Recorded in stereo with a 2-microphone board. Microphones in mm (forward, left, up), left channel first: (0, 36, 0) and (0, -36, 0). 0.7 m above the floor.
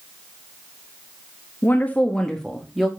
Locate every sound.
1.6 s a woman speaking: 30° left (ahead or behind), 1.1 m; by 2.9 s 5° right (ahead or behind), 1.7 m